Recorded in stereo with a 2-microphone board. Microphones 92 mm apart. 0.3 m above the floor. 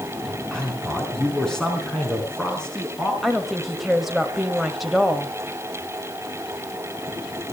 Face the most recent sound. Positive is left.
turn(degrees=0)  # may be behind; listen again after turning